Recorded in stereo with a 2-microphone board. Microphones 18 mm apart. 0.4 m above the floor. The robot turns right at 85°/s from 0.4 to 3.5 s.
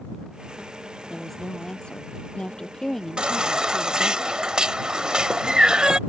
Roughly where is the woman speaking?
Ahead.